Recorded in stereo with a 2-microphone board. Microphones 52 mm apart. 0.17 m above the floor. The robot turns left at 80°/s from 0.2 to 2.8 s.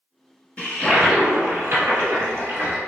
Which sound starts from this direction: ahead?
A toilet flushing, at 0.6 s.